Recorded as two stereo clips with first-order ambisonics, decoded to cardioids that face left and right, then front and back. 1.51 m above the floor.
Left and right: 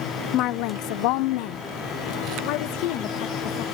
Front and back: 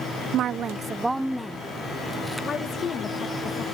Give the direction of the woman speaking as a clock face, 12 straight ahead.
8 o'clock.